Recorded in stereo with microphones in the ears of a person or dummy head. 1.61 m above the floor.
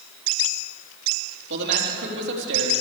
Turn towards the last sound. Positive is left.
turn(degrees=-65)  # may be behind; listen again after turning